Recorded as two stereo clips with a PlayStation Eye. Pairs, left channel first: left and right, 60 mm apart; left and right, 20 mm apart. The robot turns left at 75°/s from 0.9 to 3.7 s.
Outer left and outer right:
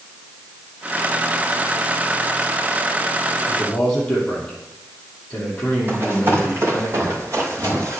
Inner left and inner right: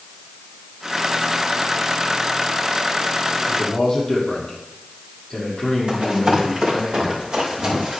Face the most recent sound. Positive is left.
turn(degrees=-50)  # may be behind; listen again after turning